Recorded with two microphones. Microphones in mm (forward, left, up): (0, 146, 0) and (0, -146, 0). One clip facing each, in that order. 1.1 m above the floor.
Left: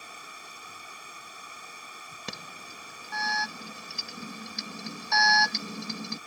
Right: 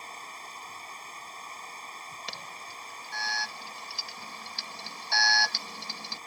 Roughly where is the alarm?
Left.